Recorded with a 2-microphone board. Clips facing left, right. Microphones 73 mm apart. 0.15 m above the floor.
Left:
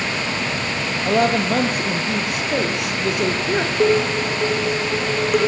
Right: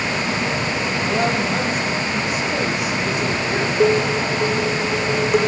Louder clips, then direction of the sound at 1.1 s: Left 4 dB; 60° left (ahead or behind).